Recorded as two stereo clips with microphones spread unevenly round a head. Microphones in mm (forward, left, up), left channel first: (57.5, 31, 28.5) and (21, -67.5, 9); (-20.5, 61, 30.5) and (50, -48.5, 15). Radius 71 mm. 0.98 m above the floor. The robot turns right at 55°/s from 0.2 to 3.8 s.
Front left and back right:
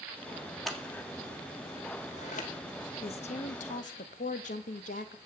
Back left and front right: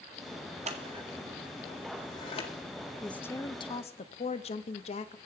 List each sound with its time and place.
0.7 s scissors: 20° right, 2 m; by 2.5 s 80° left, 2 m
3.0 s a woman speaking: 35° left, 0.9 m; by 5.2 s 80° left, 0.9 m